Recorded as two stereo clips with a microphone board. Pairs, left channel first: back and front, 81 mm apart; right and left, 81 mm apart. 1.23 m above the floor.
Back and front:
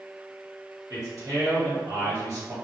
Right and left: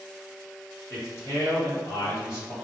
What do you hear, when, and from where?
0.9 s a man speaking: 40° right, 1.0 m